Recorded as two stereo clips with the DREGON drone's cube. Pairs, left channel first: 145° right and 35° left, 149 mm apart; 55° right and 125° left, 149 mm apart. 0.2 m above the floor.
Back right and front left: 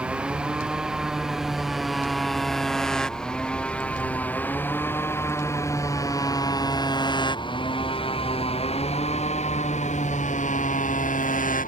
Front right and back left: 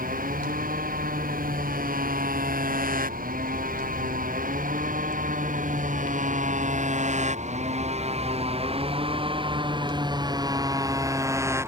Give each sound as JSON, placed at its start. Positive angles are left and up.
{"t": 0.0, "sound": "a motorcycle", "azimuth_deg": 115}